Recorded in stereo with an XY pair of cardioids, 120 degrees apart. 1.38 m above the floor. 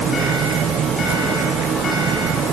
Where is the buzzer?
No buzzer in this recording.